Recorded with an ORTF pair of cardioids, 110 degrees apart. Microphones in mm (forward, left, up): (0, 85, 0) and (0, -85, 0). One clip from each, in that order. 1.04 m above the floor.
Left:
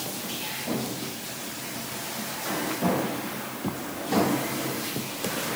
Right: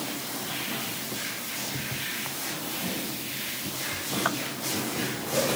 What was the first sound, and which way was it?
Only background noise.